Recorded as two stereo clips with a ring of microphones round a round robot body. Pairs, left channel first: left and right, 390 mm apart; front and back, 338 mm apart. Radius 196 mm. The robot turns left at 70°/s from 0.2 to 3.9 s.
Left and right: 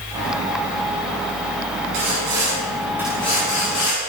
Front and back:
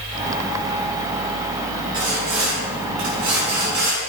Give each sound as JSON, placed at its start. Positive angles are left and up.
{"t": 1.9, "sound": "sawing", "azimuth_deg": -100, "distance_m": 8.0}